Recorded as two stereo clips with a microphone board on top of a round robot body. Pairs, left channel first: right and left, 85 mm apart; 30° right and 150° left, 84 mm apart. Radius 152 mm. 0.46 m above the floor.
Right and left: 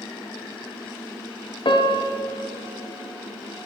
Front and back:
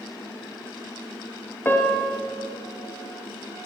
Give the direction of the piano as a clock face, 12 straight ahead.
3 o'clock.